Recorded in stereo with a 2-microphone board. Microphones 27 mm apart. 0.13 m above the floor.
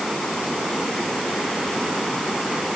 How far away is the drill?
No drill in this recording.